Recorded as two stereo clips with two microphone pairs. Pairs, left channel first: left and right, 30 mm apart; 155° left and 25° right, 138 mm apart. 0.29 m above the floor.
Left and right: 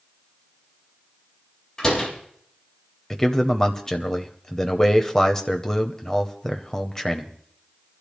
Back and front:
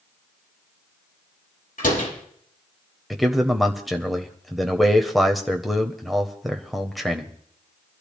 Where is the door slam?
160° left, 5 m.